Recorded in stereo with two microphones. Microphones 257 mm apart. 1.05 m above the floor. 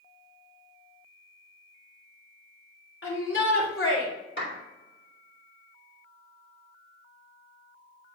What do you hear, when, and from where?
3.0 s a shout: 55° left (ahead or behind), 3.5 m
4.4 s a clap: 45° left (ahead or behind), 3 m